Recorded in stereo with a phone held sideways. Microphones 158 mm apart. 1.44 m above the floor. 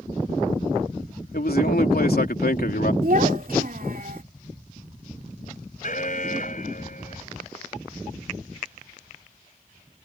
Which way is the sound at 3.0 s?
70° right (ahead or behind).